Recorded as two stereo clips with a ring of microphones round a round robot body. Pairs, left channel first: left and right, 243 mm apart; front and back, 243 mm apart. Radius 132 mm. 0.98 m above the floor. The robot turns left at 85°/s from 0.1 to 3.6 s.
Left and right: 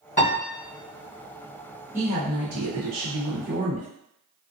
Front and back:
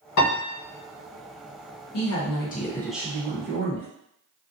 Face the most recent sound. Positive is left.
turn(degrees=-150)